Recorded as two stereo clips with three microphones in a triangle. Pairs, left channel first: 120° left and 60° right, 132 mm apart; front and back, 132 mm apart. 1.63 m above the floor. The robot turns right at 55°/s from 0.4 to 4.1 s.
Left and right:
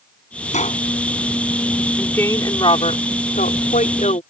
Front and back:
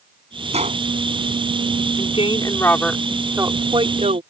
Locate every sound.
0.5 s a gunshot: 145° left; by 0.8 s 160° left
2.0 s a woman speaking: 35° left; by 4.2 s 150° left